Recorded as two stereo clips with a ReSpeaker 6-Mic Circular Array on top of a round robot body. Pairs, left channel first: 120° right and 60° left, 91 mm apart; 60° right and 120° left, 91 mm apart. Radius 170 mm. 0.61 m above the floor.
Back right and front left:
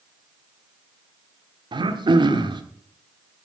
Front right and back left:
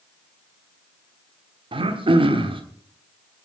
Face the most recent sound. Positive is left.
turn(degrees=95)